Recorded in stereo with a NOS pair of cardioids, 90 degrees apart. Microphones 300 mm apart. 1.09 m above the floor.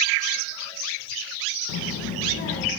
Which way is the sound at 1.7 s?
65° left.